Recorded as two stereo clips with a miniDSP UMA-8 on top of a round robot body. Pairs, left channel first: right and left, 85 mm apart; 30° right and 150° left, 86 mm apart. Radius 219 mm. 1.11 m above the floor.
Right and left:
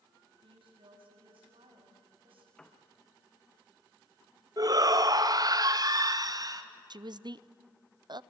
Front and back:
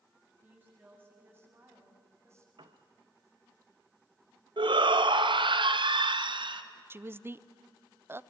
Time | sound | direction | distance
0.4 | a woman speaking | 80° left | 8.5 m
2.6 | a piano | 175° right | 0.5 m
4.6 | a shout | 130° left | 2.5 m
6.9 | a woman speaking | 90° left | 0.9 m